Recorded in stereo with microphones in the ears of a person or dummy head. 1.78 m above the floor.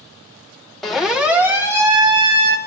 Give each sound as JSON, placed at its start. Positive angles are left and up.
{"t": 0.8, "sound": "a siren", "side_deg": 0, "distance_m": 3.0}